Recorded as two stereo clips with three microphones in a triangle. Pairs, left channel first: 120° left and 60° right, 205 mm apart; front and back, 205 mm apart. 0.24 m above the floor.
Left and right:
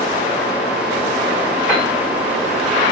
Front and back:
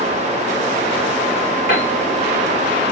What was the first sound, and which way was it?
A piano, 25° left.